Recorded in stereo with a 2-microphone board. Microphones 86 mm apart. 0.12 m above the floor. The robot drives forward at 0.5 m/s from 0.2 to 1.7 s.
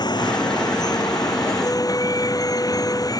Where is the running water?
55° left (ahead or behind); by 3.2 s 45° left (ahead or behind).